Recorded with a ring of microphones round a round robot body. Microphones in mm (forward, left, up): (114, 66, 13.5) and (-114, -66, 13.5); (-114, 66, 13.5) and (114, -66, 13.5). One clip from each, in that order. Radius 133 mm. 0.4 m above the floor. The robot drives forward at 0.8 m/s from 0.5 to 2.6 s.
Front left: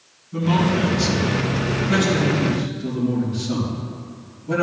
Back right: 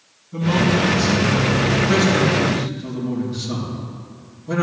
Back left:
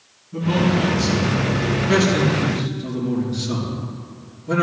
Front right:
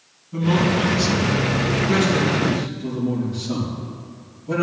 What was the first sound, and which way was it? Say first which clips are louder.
A man speaking: back right 2 dB, even; 85° right.